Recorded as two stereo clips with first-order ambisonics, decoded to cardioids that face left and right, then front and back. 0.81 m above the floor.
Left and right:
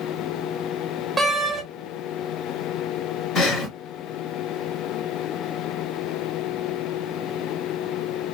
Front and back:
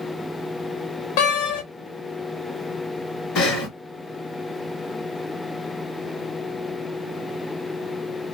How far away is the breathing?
About 1.2 m.